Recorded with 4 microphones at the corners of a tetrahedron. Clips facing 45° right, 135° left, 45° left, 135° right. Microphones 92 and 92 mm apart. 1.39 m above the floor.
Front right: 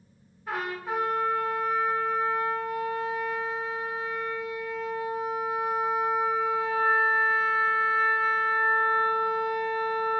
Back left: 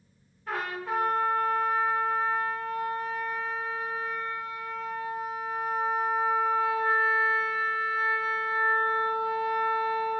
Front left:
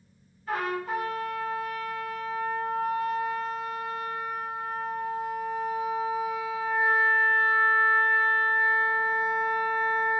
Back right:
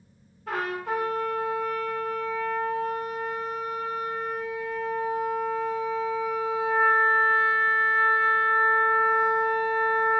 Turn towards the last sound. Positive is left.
turn(degrees=-125)